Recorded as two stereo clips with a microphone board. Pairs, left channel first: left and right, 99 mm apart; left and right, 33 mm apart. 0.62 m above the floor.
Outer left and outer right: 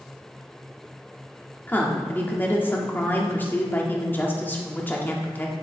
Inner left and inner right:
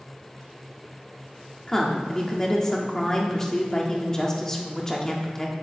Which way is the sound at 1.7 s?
20° left (ahead or behind).